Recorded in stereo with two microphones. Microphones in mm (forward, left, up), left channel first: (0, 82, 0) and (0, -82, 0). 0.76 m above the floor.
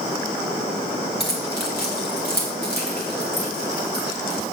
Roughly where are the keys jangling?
Left.